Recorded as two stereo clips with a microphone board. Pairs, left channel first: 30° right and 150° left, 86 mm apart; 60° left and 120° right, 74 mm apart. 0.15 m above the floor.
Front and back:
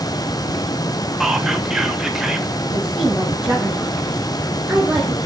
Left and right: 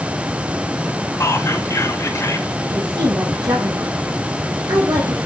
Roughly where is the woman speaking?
Behind right.